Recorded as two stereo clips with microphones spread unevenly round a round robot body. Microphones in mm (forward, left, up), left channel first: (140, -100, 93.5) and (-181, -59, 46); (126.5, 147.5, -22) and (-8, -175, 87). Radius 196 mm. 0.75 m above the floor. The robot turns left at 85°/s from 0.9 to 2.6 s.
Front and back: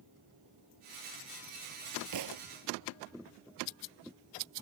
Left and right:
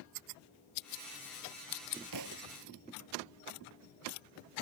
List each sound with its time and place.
2.1 s a thud: 150° right; by 2.5 s 175° right